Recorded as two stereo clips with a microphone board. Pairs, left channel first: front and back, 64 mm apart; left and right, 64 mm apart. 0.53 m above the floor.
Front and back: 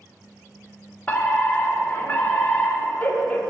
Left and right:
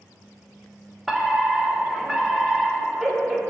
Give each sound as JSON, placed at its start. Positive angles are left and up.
{"t": 1.1, "sound": "a fire alarm", "azimuth_deg": -5, "distance_m": 2.0}